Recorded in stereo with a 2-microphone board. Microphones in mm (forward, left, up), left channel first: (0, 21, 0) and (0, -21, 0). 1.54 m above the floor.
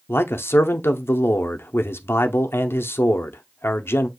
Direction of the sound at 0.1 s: 75° left (ahead or behind).